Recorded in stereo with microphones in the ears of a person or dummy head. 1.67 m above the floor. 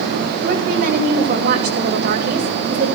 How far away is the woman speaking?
About 2 m.